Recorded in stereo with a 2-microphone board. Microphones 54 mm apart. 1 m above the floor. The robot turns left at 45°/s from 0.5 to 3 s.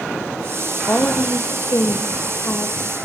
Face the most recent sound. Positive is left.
turn(degrees=30)